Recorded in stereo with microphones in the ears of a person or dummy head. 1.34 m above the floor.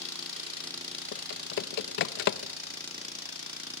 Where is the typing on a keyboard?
60° left (ahead or behind), 0.8 m.